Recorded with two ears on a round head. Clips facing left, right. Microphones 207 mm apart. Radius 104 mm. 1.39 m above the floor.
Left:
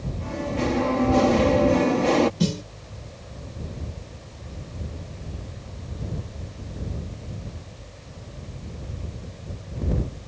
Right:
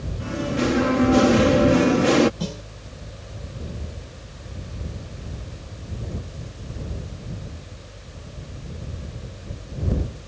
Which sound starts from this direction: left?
A snare drum, at 2.4 s.